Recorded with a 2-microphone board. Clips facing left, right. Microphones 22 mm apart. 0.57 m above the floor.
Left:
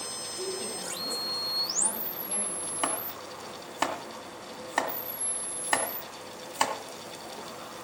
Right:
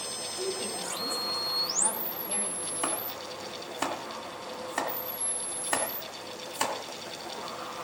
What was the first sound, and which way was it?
A woman speaking, 15° right (ahead or behind).